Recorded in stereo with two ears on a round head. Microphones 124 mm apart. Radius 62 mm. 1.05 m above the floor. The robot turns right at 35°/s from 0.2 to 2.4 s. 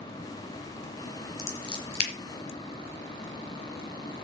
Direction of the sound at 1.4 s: 20° left (ahead or behind).